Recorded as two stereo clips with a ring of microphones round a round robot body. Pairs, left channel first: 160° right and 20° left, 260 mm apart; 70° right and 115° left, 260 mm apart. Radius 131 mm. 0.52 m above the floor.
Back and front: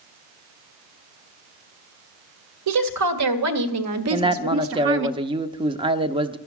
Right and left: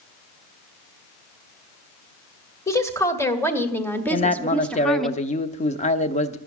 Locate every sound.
2.7 s a woman speaking: 10° left, 2.0 m; by 5.1 s 20° left, 0.9 m
4.1 s a man speaking: 30° right, 0.7 m